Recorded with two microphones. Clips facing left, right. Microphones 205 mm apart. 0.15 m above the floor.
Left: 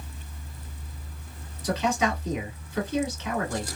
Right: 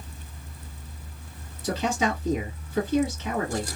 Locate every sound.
1.6 s a man speaking: 30° right (ahead or behind), 1.3 m